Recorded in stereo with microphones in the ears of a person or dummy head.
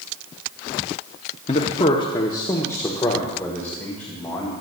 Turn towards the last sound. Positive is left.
turn(degrees=5)  # may be behind; listen again after turning